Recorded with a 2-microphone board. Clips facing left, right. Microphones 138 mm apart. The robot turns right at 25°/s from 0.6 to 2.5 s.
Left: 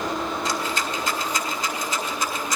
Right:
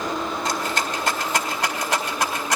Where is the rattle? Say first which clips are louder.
Right 1 dB; 60° right (ahead or behind), 2 m; by 2.6 s 75° right (ahead or behind), 2 m.